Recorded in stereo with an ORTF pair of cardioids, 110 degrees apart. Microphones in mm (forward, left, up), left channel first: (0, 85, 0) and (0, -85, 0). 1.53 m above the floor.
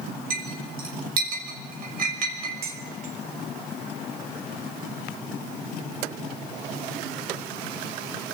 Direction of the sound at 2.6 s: 65° right.